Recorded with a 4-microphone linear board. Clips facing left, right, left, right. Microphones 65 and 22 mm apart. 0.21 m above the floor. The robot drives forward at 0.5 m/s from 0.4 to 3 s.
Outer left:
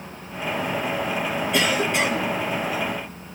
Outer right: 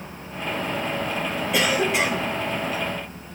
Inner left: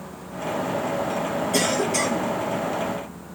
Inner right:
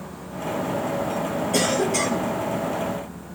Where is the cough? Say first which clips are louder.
Outer right 1 dB, inner right 1 dB; centre (ahead or behind), 2.5 m.